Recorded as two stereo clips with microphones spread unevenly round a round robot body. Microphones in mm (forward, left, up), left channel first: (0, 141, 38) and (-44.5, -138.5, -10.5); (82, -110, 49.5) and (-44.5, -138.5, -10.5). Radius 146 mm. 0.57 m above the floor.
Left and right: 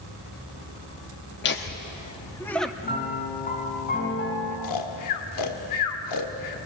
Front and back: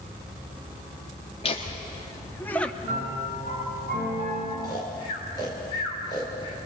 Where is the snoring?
95° left, 1.7 m.